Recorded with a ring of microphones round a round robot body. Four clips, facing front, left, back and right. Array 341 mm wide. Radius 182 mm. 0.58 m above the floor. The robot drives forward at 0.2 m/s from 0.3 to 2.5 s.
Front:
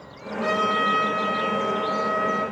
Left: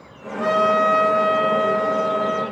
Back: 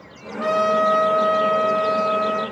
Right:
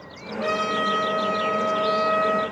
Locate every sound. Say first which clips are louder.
0.4 s a trumpet: left 7 dB, back 5 dB; 145° left, 0.9 m; by 2.4 s 160° left, 1.2 m